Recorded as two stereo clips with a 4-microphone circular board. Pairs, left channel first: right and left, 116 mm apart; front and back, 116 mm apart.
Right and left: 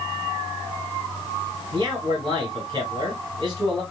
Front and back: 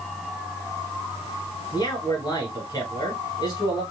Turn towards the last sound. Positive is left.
turn(degrees=50)